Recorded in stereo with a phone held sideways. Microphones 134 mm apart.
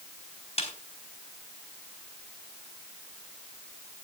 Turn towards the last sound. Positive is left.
turn(degrees=50)  # may be behind; listen again after turning